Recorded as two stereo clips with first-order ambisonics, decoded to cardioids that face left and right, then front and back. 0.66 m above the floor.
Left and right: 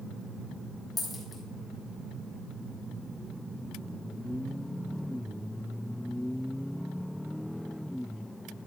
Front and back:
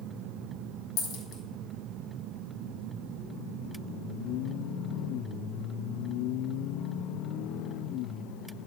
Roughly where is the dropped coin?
Ahead.